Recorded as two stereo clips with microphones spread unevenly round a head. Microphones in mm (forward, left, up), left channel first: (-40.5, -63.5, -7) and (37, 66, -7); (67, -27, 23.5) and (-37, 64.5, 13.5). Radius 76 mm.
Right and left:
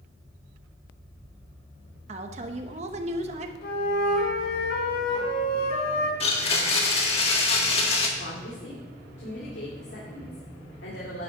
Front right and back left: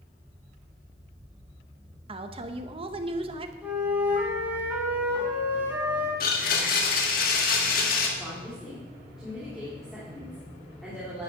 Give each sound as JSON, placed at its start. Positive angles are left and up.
{"t": 2.1, "sound": "a woman speaking", "azimuth_deg": 100, "distance_m": 0.9}
{"t": 3.6, "sound": "a flute", "azimuth_deg": -140, "distance_m": 2.0}
{"t": 6.2, "sound": "a blender", "azimuth_deg": -70, "distance_m": 1.6}
{"t": 8.2, "sound": "a woman speaking", "azimuth_deg": -135, "distance_m": 2.5}